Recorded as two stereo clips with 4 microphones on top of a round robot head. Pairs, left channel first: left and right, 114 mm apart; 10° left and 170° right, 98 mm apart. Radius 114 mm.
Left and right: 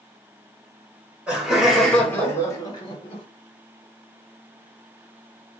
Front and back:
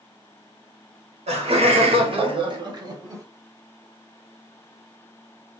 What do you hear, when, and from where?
1.3 s laughter: 170° right, 1.4 m; by 3.2 s 130° left, 1.3 m